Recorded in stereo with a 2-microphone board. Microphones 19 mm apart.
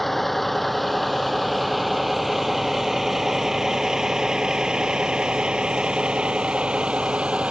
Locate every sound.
0.0 s a vehicle: 10° left (ahead or behind); by 7.5 s 75° right (ahead or behind)